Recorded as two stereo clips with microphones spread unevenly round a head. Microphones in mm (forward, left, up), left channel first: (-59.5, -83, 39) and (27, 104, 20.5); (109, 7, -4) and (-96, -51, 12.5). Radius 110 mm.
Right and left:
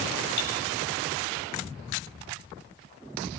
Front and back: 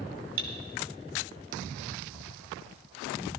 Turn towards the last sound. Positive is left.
turn(degrees=-140)